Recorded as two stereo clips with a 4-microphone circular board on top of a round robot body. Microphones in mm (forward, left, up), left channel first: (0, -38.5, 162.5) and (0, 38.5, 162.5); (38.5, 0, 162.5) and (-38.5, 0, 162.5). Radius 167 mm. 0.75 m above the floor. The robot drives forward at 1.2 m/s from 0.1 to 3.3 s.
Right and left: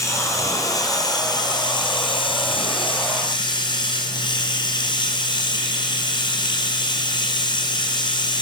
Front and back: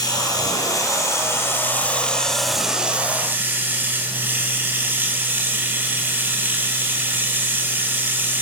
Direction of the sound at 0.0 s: 40° right.